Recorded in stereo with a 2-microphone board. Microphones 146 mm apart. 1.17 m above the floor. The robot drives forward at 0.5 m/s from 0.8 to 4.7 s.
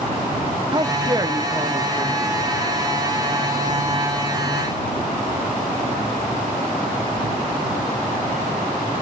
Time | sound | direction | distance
0.7 | a man speaking | 30° right (ahead or behind) | 0.6 m